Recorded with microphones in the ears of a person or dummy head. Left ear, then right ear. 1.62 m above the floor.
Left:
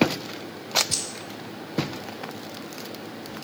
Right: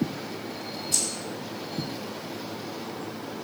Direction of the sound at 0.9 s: 50° left (ahead or behind).